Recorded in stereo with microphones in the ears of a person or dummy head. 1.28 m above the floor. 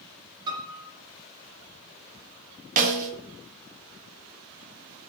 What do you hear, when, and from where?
0.5 s a piano: 25° right (ahead or behind), 1.6 m
2.8 s a snare drum: 40° right (ahead or behind), 1.5 m